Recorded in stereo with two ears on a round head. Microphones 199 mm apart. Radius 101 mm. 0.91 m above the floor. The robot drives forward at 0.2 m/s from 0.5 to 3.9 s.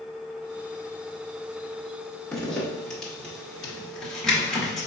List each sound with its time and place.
2.3 s a zipper: 5° left (ahead or behind), 1.3 m